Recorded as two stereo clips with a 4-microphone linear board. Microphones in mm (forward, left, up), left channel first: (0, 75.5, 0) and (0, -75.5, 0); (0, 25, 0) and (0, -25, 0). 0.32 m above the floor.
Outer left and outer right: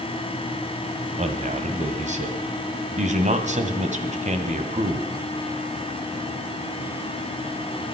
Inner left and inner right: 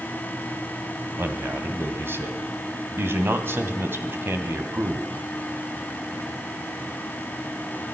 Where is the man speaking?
50° right (ahead or behind), 1.9 m.